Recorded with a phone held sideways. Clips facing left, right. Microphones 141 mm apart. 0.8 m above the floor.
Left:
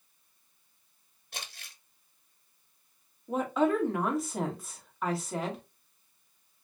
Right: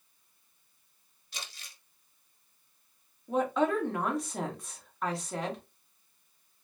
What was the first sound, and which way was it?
Crumpling, 50° left (ahead or behind).